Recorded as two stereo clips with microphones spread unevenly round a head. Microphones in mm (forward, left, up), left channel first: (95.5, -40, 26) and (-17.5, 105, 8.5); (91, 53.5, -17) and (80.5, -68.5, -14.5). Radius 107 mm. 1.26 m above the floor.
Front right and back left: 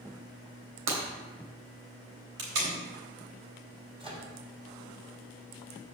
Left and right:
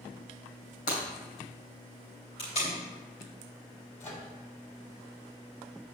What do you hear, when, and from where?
0.9 s breaking glass: 125° left, 3 m
2.4 s tape being pulled: 145° left, 3.5 m
4.0 s a microwave: 65° left, 3 m